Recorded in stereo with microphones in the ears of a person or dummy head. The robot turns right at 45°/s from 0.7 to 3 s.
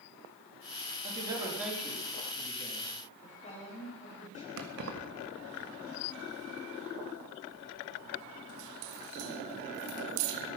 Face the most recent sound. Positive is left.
turn(degrees=-55)  # may be behind; listen again after turning